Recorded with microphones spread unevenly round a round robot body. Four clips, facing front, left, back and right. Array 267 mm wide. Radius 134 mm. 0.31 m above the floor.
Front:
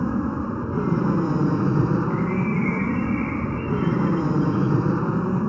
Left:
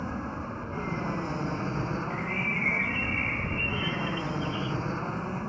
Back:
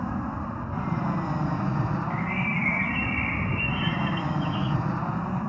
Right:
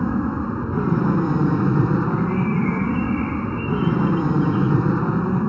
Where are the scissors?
No scissors in this recording.